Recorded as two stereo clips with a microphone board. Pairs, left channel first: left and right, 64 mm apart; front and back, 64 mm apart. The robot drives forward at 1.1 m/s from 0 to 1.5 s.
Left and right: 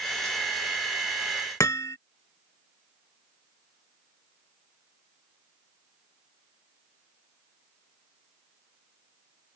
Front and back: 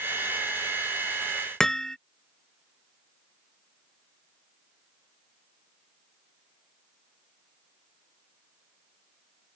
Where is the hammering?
80° left.